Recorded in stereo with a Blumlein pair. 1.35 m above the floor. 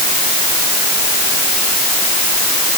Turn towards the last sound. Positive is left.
No sound to turn to.